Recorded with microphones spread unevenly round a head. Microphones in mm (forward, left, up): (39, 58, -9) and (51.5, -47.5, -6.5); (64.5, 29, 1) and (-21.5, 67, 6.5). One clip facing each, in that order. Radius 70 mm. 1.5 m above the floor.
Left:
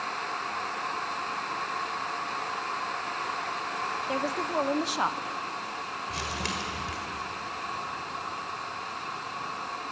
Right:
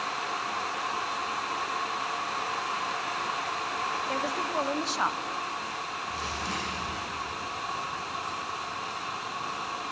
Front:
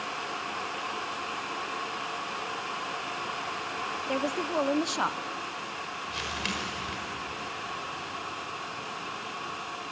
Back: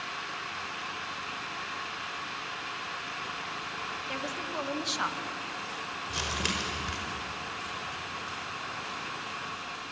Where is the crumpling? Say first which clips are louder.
Even, back 2 dB; 100° left, 5 m.